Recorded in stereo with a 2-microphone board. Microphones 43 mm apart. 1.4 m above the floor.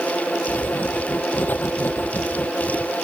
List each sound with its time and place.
0.5 s writing: 45° left (ahead or behind)